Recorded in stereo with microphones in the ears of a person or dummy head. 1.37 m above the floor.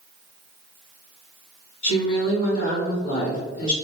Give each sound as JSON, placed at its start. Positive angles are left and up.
{"t": 1.8, "sound": "a woman speaking", "side_deg": 80, "distance_m": 1.8}